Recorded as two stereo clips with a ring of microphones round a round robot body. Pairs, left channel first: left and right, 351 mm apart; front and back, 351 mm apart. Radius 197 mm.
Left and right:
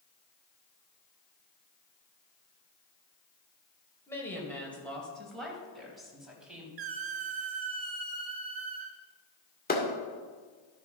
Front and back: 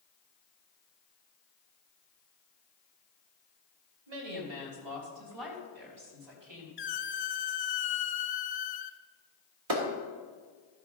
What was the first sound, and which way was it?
A woman speaking, 175° left.